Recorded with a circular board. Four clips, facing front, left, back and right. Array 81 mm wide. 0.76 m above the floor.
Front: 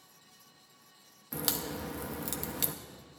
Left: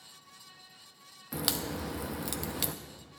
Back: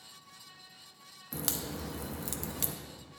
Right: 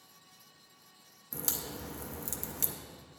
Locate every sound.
1.3 s a crack: 80° left, 0.5 m